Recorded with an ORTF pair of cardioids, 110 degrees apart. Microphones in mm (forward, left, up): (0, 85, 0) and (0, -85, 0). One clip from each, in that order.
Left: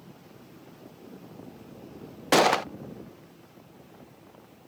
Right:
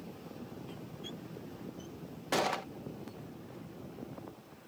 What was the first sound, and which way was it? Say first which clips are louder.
A gunshot: left 11 dB; 50° left.